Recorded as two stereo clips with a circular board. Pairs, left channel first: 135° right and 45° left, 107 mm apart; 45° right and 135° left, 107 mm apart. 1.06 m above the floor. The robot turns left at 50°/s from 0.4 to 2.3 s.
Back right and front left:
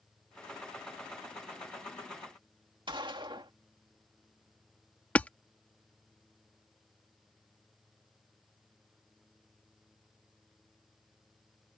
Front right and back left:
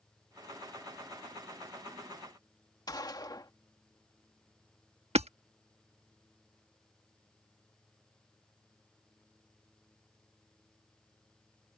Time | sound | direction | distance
2.9 | a gunshot | 5° left | ?
5.2 | hammering | 150° left | ?